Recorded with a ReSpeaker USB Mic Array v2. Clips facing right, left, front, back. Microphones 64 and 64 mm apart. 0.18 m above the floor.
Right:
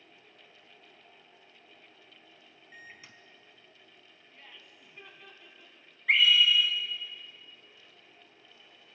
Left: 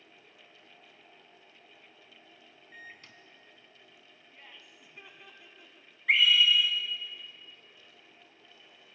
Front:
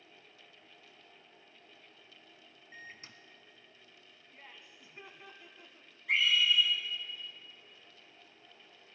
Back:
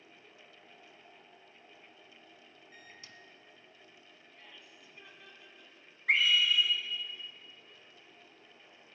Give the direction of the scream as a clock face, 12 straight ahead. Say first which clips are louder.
Even, back 1 dB; 6 o'clock.